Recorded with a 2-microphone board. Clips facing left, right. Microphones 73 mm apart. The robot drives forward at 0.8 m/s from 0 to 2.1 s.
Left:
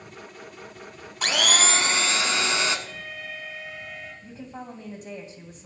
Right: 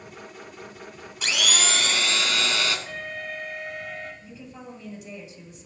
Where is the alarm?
55° right (ahead or behind), 5 m.